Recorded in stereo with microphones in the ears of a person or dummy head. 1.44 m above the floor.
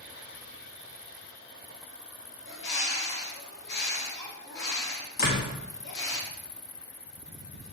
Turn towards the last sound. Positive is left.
turn(degrees=45)  # may be behind; listen again after turning